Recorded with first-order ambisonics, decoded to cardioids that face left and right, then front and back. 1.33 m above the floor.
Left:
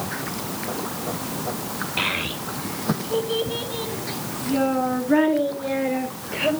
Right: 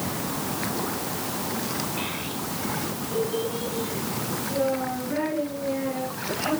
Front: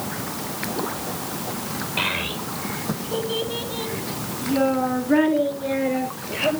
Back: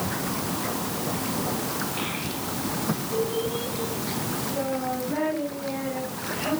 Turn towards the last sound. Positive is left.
turn(degrees=50)